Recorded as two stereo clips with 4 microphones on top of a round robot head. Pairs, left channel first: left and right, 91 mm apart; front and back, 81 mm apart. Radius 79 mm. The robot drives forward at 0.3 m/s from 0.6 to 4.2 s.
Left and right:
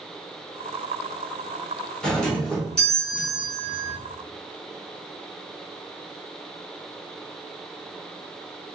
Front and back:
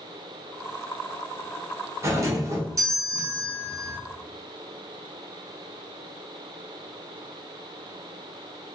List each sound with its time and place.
2.0 s a doorbell: 165° left, 1.3 m; by 4.0 s 175° left, 1.7 m